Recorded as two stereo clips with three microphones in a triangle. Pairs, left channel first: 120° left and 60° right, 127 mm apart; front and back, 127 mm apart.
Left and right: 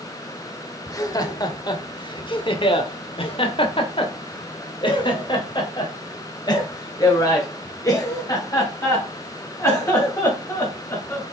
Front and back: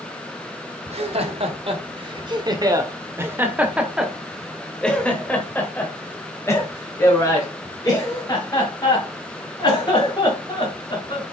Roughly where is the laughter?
Behind.